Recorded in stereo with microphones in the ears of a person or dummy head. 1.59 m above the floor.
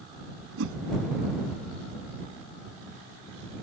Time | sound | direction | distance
0.6 | a whoosh | 75° right (ahead or behind) | ?